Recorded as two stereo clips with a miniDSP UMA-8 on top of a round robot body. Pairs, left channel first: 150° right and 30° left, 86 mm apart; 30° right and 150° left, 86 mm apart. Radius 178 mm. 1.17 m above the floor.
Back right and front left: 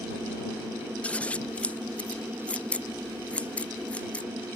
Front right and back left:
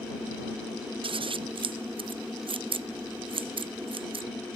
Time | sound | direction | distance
1.0 | scissors | 135° left | ?